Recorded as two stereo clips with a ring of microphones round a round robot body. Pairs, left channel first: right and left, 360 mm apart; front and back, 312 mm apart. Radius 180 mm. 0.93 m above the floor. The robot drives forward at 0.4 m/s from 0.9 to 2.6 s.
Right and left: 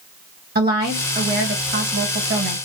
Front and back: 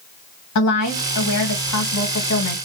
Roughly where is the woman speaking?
Ahead left.